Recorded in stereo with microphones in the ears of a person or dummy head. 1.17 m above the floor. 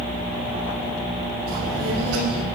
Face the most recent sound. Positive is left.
turn(degrees=-80)